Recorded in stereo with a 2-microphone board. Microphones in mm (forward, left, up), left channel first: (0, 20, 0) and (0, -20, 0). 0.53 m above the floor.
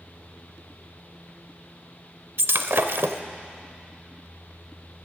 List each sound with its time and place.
2.4 s breaking glass: 70° right (ahead or behind), 0.6 m